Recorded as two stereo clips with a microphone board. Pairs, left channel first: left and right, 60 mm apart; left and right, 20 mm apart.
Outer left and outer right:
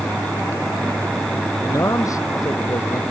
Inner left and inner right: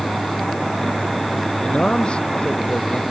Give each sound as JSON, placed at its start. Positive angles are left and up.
{"t": 1.6, "sound": "a man speaking", "side_deg": 65}